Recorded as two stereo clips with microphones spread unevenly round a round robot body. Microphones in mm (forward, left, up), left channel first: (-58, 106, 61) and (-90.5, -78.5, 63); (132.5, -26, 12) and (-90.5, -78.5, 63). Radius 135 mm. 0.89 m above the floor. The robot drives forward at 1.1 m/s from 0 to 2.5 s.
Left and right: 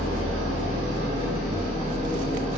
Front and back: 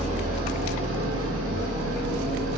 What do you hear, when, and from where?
0.0 s an engine running: 100° right, 1.6 m; by 2.6 s 155° right, 3.5 m